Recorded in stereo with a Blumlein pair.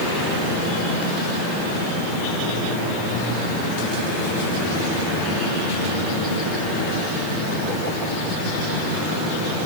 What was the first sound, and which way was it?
Only background noise.